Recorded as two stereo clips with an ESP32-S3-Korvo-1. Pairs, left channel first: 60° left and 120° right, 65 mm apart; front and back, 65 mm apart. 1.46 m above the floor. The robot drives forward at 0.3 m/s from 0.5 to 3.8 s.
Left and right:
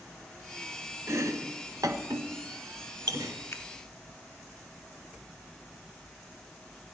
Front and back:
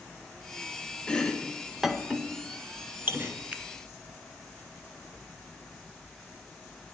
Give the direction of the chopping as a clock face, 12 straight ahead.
3 o'clock.